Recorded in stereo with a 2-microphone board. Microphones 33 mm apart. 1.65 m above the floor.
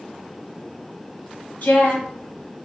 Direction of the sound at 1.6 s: 70° left (ahead or behind).